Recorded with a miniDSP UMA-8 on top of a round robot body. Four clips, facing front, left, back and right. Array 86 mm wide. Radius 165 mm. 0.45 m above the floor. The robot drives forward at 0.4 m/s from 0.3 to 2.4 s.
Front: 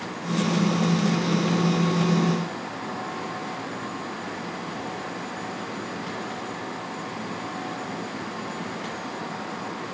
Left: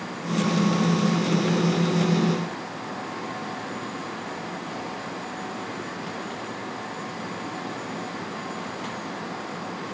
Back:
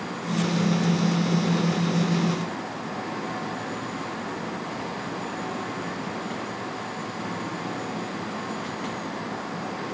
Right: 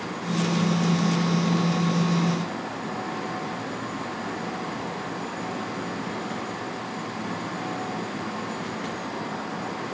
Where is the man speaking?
No man speaking in this recording.